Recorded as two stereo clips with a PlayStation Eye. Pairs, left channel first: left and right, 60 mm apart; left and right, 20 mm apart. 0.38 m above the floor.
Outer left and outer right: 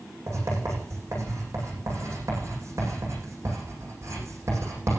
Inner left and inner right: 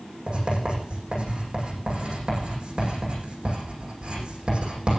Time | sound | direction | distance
0.3 | writing | 55° right (ahead or behind) | 9 m